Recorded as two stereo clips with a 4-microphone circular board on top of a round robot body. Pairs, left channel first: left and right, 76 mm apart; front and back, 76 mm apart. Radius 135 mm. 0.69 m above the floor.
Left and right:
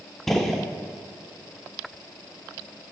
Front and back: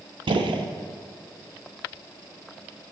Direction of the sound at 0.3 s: 175° left.